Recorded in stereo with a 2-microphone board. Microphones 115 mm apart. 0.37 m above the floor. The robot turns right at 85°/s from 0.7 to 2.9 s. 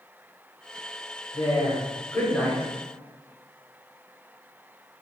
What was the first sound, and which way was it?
A woman speaking, 85° left.